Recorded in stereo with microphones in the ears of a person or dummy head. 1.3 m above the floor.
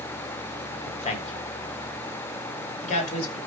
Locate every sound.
0.9 s a man speaking: 40° left (ahead or behind), 3.5 m; by 3.4 s 45° left (ahead or behind), 5.5 m